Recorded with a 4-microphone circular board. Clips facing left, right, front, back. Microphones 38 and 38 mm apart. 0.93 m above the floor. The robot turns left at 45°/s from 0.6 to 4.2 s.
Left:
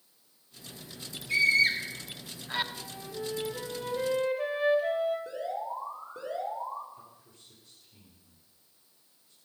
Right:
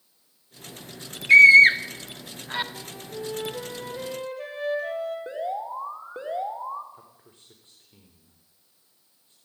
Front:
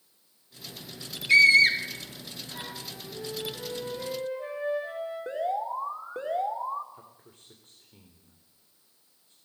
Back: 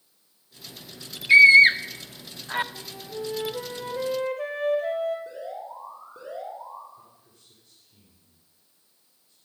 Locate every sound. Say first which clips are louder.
1.3 s a scream: right 13 dB, back 5 dB; 110° right, 1.9 m; by 2.6 s 170° right, 1.9 m
2.8 s a flute: right 3 dB, back 4 dB; 125° right, 4 m; by 5.2 s 170° left, 4 m
5.3 s an alarm: right 4 dB, front 7 dB; 35° right, 4 m
6.9 s a man speaking: right 1 dB, front 1 dB; 40° right, 4 m